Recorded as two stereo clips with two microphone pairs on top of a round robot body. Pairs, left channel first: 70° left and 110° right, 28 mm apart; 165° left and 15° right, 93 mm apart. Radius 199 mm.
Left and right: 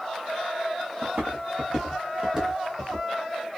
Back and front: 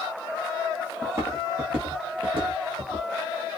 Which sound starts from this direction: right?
Footsteps, at 1.0 s.